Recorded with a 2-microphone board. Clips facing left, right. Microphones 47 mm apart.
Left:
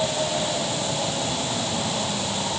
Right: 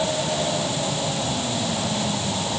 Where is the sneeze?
No sneeze in this recording.